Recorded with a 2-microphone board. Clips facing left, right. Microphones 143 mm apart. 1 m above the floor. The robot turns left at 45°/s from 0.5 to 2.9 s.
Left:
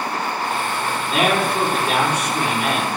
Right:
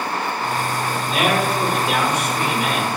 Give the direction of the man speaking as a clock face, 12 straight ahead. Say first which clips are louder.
Left 1 dB; 8 o'clock.